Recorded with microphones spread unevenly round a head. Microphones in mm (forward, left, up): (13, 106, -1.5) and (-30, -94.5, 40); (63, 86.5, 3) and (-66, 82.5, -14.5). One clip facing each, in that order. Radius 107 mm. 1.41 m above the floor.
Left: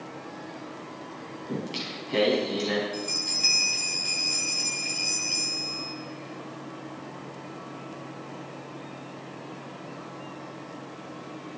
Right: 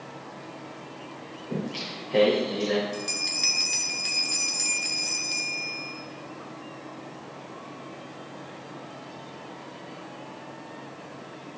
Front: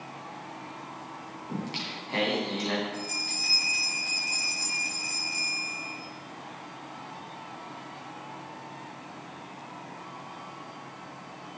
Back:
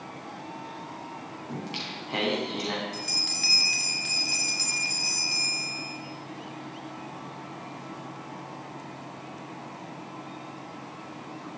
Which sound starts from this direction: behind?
A bell, at 2.9 s.